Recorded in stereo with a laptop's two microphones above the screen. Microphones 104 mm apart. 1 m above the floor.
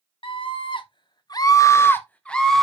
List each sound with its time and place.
0.2 s a scream: 50° left (ahead or behind), 1.1 m; by 2.6 s centre (ahead or behind), 1.1 m